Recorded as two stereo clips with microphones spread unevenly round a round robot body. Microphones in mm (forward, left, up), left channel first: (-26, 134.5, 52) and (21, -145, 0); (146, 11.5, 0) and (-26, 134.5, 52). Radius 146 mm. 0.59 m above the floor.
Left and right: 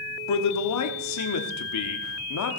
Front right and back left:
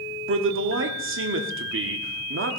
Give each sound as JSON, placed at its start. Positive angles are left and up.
{"t": 0.3, "sound": "a man speaking", "azimuth_deg": 125, "distance_m": 1.4}